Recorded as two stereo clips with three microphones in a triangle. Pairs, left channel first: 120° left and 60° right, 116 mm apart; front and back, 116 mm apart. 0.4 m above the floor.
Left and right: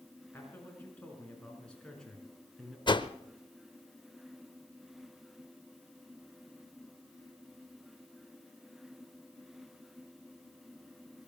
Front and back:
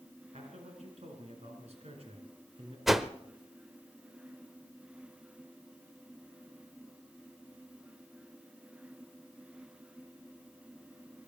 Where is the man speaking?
170° right, 4.5 m; by 2.8 s 150° right, 4.5 m.